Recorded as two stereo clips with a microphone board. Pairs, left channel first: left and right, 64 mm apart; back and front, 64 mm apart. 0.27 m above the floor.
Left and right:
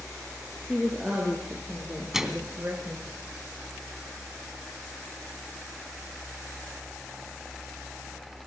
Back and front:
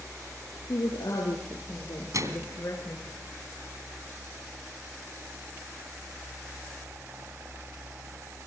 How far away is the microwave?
About 2.5 m.